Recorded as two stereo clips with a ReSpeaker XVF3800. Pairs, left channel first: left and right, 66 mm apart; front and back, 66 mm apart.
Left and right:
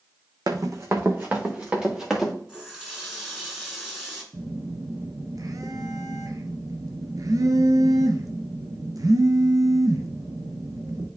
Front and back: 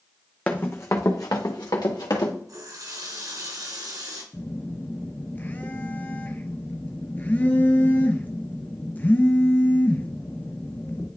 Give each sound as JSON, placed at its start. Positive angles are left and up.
{"t": 0.5, "sound": "running footsteps", "azimuth_deg": -70, "distance_m": 1.0}
{"t": 2.5, "sound": "a running tap", "azimuth_deg": -170, "distance_m": 2.0}
{"t": 4.3, "sound": "a phone buzzing", "azimuth_deg": -65, "distance_m": 0.9}